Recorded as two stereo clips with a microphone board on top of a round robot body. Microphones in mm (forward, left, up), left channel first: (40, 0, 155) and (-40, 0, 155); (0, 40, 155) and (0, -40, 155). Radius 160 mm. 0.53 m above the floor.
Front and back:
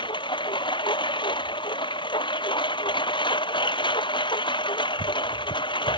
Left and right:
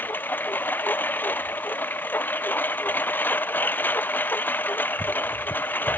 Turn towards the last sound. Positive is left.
turn(degrees=20)